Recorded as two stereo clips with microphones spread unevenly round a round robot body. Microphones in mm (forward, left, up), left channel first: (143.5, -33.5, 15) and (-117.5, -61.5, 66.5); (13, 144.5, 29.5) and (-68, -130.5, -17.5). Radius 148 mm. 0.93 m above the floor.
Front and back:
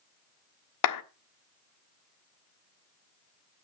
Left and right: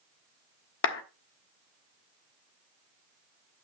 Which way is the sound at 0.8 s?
25° left.